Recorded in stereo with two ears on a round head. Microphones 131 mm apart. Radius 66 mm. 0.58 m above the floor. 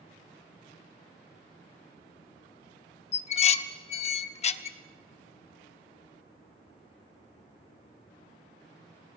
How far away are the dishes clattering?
About 0.7 m.